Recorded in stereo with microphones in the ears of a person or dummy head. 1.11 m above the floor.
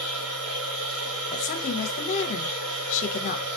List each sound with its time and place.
0.0 s a machine running: 80° right, 1.2 m
1.3 s a woman speaking: 50° left (ahead or behind), 0.5 m